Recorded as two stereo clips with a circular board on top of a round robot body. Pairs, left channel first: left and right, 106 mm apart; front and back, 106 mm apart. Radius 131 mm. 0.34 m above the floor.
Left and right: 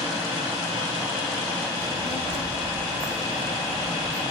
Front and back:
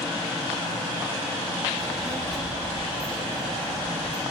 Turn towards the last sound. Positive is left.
turn(degrees=-85)